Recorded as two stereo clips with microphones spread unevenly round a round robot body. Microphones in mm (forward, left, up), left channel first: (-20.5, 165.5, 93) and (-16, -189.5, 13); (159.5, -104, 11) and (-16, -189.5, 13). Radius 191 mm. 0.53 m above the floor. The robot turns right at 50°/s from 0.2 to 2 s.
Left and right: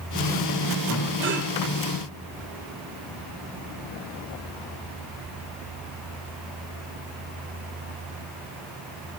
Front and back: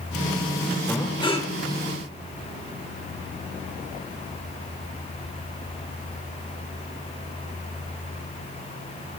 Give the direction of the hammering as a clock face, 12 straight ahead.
I don't hear hammering.